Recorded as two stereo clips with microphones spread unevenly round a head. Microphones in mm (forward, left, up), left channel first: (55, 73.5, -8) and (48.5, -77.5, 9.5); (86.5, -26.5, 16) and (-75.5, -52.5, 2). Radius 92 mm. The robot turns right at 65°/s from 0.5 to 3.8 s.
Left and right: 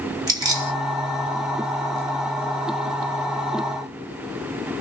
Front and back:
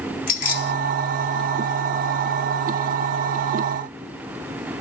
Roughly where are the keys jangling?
Ahead right.